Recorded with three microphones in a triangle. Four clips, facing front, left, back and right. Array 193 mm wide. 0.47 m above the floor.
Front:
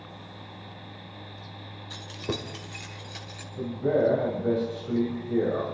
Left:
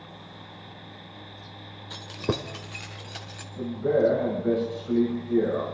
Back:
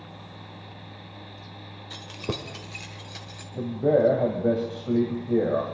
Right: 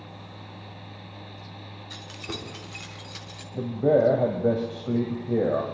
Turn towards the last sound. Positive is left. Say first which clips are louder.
# right 3 dB, back 3 dB
turn(degrees=-115)